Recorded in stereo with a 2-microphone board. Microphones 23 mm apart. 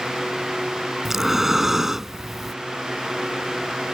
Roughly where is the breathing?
Centre.